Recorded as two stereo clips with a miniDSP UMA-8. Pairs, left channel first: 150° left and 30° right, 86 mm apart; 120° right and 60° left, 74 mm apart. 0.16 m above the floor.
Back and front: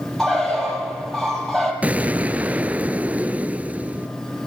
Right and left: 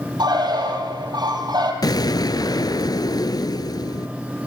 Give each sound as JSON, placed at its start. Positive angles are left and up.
{"t": 0.2, "sound": "a bird", "azimuth_deg": 65, "distance_m": 5.5}
{"t": 1.8, "sound": "an explosion", "azimuth_deg": -100, "distance_m": 1.0}